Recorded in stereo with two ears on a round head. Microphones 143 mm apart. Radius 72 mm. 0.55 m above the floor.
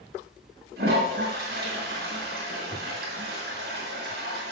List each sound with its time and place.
0.8 s a toilet flushing: 65° right (ahead or behind), 4.5 m